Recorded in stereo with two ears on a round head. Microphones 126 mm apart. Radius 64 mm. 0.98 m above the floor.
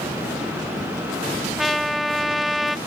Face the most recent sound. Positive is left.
turn(degrees=0)  # may be behind; listen again after turning